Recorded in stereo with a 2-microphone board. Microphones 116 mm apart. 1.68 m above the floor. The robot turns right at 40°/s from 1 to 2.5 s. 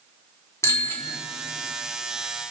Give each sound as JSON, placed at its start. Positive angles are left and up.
{"t": 0.6, "sound": "a bicycle bell", "side_deg": 25, "distance_m": 3.0}